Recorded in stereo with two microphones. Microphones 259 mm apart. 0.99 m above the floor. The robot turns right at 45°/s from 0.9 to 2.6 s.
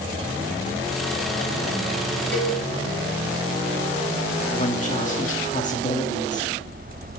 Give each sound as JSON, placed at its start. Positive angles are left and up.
{"t": 2.3, "sound": "a cowbell", "side_deg": 45, "distance_m": 3.5}
{"t": 4.5, "sound": "a woman speaking", "side_deg": 30, "distance_m": 2.0}